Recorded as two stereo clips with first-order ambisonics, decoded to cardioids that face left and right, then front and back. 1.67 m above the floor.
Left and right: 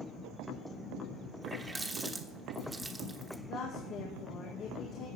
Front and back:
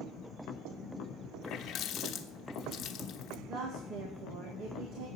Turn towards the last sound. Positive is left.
turn(degrees=140)